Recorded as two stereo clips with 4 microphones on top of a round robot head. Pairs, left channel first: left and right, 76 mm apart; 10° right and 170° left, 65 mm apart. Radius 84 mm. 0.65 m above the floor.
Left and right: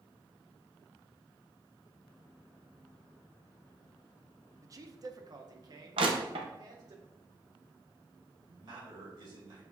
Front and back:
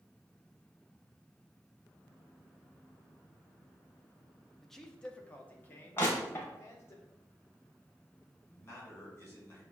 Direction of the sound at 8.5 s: 70° right.